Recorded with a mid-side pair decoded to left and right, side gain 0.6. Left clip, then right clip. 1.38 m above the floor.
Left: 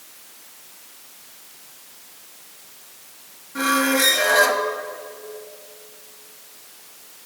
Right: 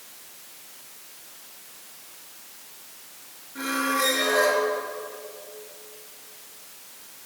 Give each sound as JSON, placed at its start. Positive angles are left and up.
{"t": 3.5, "sound": "a squeak", "azimuth_deg": 55, "distance_m": 1.6}